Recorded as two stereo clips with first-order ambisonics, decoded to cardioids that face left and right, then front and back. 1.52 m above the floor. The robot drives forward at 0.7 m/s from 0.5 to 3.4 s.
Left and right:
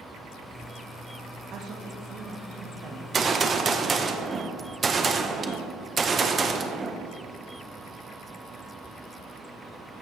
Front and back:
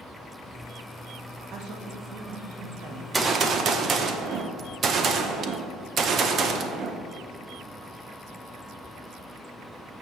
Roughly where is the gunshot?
Behind right.